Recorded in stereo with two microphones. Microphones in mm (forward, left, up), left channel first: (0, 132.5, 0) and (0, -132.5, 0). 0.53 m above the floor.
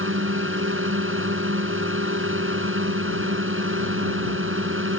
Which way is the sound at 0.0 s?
50° right (ahead or behind).